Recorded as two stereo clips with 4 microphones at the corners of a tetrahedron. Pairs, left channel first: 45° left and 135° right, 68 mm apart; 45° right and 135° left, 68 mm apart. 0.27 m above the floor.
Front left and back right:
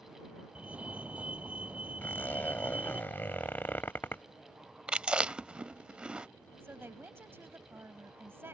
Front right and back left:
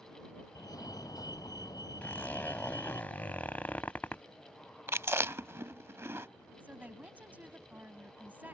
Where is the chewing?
155° left.